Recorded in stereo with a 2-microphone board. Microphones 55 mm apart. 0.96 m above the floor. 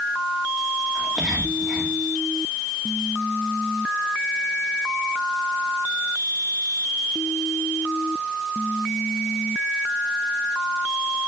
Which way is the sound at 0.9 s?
5° left (ahead or behind).